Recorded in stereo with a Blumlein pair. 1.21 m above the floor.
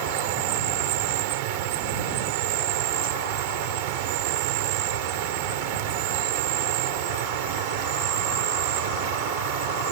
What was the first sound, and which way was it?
An insect, 50° right.